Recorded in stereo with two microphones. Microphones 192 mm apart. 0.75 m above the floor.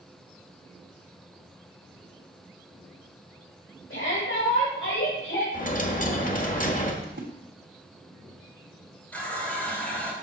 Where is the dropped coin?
40° left (ahead or behind), 1.1 m.